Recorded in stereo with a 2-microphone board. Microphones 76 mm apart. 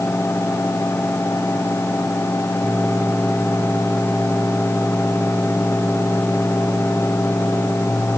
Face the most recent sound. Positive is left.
No sound to turn to.